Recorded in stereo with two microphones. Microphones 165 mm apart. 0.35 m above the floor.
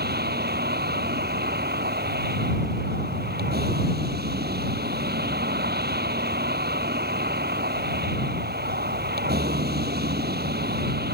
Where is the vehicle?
80° right.